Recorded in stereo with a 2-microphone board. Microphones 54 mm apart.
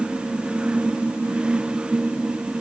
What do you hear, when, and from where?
Only background noise.